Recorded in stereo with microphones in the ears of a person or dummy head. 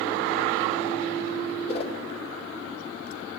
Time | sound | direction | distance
1.7 | a whoosh | 30° left (ahead or behind) | 0.7 m